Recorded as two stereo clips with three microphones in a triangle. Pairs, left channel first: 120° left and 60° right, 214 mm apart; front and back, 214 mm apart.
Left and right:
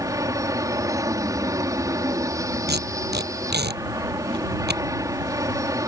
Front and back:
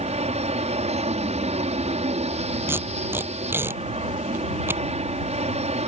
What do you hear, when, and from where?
0.0 s an aircraft: 130° right
2.7 s tape being pulled: 100° right